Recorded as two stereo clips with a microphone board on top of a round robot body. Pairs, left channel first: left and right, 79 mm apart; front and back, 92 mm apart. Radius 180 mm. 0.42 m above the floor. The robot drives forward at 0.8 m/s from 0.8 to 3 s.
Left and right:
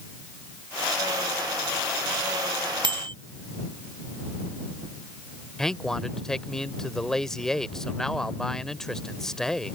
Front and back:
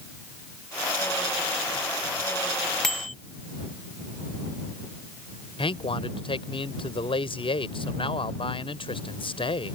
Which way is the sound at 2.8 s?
85° right.